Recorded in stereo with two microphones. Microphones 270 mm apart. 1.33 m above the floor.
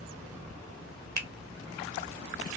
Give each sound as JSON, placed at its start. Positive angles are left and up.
{"t": 1.2, "sound": "a finger snap", "side_deg": -75, "distance_m": 0.7}